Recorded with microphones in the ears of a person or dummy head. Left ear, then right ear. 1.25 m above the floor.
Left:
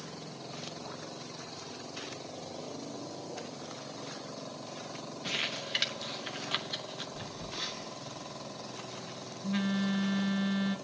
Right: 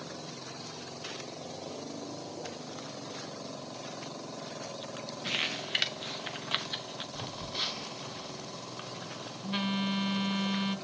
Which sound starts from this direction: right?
A phone buzzing, at 7.2 s.